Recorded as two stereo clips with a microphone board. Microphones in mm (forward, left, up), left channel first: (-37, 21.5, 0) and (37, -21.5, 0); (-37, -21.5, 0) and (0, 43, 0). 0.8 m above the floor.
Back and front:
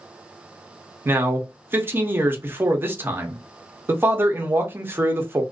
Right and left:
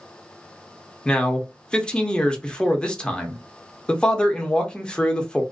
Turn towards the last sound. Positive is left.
turn(degrees=-55)